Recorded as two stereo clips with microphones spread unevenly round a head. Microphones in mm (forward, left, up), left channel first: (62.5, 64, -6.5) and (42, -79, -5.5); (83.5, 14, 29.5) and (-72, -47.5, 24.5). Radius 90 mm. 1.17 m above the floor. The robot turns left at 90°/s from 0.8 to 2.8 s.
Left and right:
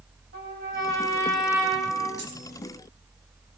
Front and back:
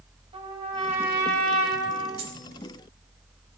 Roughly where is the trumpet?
Right.